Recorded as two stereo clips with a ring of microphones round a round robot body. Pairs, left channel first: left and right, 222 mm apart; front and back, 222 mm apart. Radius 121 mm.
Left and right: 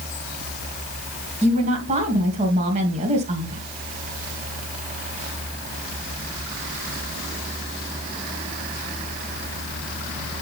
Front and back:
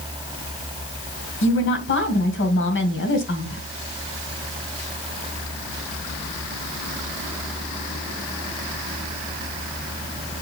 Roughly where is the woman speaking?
Ahead right.